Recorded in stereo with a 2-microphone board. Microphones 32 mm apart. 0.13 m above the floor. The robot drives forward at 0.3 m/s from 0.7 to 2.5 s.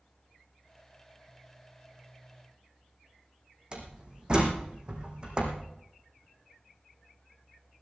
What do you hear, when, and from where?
3.7 s a door slam: 25° right (ahead or behind), 4 m